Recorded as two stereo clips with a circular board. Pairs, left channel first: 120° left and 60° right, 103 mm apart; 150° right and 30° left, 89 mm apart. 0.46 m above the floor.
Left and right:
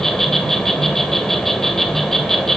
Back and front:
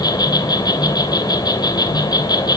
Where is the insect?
155° right, 3 m.